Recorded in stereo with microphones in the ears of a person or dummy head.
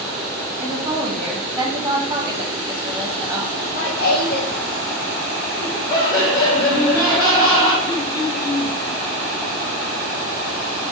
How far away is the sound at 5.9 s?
About 2 m.